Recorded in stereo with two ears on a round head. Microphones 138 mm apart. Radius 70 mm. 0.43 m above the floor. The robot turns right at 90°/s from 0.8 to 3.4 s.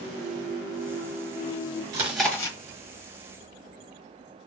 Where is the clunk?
25° right, 0.8 m; by 1.8 s 70° left, 0.8 m.